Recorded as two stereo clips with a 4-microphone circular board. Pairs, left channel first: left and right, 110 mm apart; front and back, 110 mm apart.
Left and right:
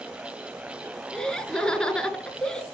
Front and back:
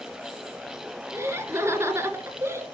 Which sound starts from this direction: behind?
Laughter, at 1.1 s.